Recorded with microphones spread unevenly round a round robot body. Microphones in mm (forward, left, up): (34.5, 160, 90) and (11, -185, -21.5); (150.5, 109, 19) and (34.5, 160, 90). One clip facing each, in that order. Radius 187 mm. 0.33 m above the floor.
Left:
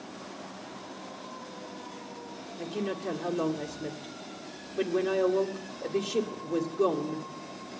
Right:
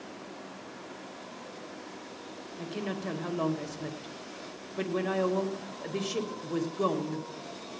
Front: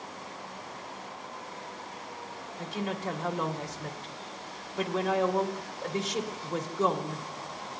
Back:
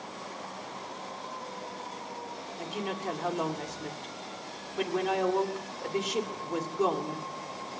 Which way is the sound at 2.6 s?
70° right.